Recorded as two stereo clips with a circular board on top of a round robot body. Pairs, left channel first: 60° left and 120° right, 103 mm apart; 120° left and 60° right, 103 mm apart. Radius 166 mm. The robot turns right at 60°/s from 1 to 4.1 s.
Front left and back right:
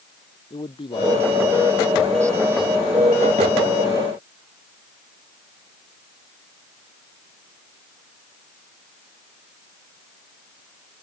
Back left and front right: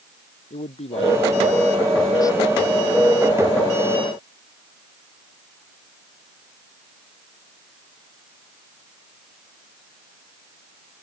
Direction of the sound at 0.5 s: 100° left.